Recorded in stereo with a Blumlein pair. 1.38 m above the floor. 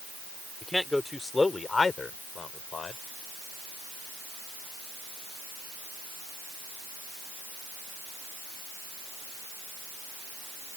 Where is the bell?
No bell in this recording.